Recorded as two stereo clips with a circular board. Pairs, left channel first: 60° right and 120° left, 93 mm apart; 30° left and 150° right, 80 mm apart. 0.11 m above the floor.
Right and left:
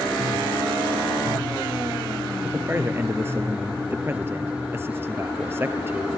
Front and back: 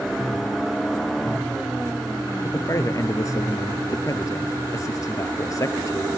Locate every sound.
2.4 s a man speaking: 60° left, 1.6 m